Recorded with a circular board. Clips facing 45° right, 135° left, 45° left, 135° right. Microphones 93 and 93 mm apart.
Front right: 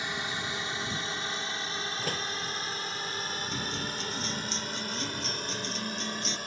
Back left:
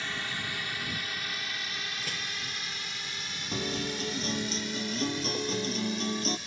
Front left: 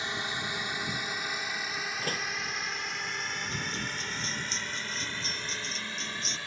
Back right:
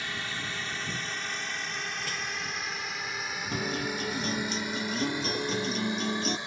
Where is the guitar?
175° right.